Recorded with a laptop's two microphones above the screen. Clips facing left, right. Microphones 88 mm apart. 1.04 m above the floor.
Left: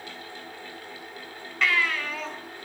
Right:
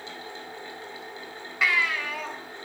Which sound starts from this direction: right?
A fan, at 0.0 s.